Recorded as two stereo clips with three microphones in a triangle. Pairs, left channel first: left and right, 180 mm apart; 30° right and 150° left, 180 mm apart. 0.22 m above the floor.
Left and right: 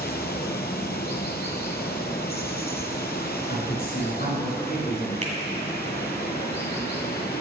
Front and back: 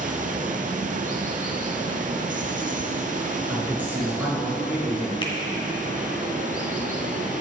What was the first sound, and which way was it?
Running water, 110° left.